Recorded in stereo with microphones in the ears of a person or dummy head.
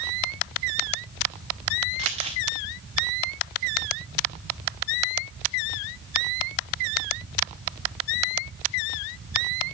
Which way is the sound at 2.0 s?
30° right (ahead or behind).